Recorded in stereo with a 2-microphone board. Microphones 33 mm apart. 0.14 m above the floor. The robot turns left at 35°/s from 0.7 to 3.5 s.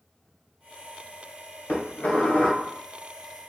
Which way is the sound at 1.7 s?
105° left.